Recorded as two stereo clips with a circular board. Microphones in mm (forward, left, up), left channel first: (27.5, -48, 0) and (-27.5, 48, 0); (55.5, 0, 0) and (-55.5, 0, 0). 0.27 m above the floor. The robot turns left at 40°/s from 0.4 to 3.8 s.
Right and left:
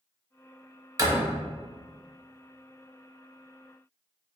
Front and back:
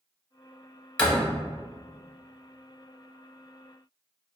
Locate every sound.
1.0 s a door slam: 75° left, 0.8 m; by 1.3 s 65° left, 0.8 m